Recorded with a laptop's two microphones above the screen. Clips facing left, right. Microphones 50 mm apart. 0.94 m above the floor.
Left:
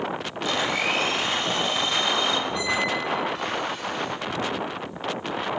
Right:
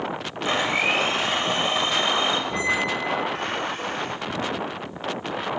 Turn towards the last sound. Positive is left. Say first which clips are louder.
# right 1 dB
turn(degrees=-45)  # may be behind; listen again after turning